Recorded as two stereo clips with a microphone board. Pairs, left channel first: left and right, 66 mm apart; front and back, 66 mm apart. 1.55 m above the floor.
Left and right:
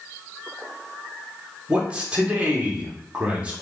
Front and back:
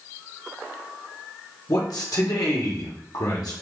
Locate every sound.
1.7 s a man speaking: 20° right, 1.1 m